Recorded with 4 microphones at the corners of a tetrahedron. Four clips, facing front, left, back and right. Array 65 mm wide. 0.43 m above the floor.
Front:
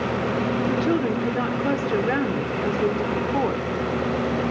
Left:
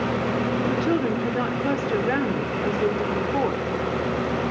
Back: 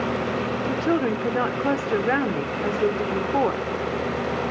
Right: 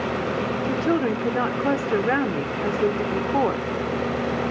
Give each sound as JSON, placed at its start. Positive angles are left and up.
{"t": 0.7, "sound": "a woman speaking", "azimuth_deg": -130, "distance_m": 1.1}